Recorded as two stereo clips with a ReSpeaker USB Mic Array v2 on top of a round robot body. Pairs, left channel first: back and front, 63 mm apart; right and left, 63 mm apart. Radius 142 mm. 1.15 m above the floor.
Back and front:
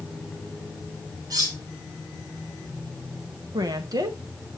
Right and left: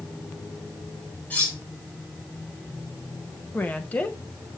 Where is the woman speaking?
25° right, 1.4 m.